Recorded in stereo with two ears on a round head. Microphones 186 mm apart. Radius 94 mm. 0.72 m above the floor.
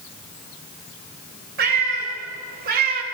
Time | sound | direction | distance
1.6 | a cat meowing | 45° right (ahead or behind) | 2.5 m